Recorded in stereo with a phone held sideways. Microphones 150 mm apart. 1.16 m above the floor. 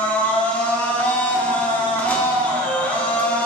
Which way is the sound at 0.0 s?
10° left (ahead or behind).